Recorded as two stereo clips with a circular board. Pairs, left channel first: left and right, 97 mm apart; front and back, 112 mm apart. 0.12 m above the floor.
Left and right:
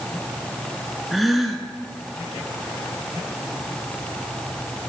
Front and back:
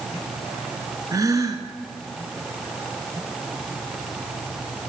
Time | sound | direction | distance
1.1 | a gasp | straight behind | 1.0 m